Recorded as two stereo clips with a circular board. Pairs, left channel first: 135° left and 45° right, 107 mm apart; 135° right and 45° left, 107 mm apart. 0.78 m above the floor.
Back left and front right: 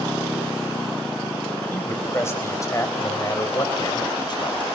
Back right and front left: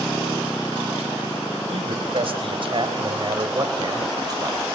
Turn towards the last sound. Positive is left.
turn(degrees=100)